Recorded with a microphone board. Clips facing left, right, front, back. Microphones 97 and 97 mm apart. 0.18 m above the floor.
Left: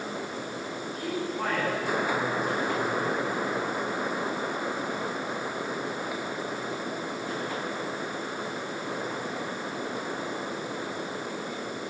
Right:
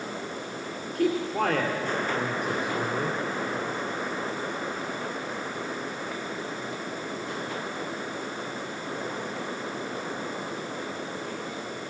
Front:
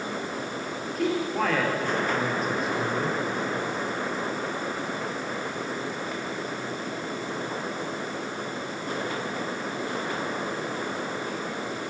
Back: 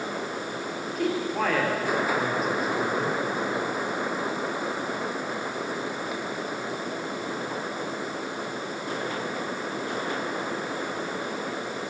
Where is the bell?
No bell in this recording.